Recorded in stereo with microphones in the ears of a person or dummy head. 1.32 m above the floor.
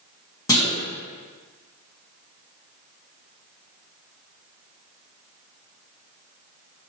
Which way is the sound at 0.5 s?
20° left (ahead or behind).